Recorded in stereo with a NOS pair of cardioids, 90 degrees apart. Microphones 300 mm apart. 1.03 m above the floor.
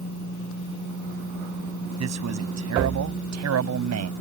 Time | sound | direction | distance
2.0 | a man speaking | 60° right | ?